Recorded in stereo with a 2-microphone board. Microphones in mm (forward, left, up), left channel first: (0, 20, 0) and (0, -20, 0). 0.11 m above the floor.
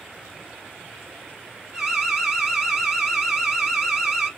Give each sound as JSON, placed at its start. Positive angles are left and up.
{"t": 1.7, "sound": "an alarm", "side_deg": -10, "distance_m": 1.4}